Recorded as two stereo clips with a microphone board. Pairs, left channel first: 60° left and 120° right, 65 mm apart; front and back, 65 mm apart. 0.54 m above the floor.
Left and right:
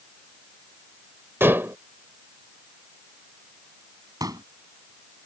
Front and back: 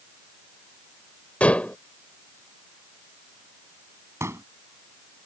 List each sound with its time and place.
1.4 s dishes clattering: 65° right
4.2 s a pop: 135° right